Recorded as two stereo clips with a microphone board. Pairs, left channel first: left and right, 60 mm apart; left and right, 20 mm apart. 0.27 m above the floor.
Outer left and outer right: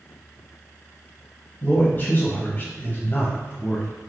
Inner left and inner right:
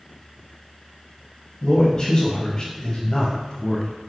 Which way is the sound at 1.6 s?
35° left (ahead or behind).